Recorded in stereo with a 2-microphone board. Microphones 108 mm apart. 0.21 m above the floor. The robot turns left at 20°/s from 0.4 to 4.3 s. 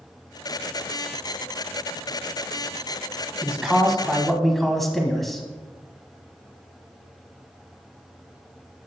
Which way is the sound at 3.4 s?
5° right (ahead or behind).